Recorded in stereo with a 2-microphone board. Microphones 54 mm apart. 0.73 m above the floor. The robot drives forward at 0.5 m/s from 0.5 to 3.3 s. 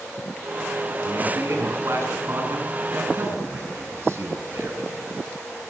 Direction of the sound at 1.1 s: 60° right (ahead or behind).